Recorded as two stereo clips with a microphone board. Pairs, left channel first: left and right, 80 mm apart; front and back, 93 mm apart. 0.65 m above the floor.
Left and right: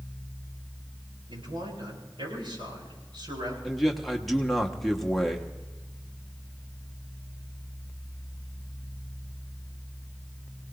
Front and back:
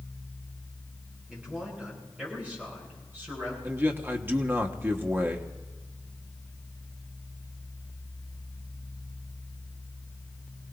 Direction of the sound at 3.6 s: 175° left.